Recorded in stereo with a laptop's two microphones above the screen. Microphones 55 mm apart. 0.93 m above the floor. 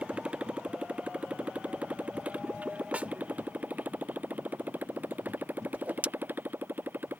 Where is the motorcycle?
20° right (ahead or behind); by 7.2 s 35° right (ahead or behind).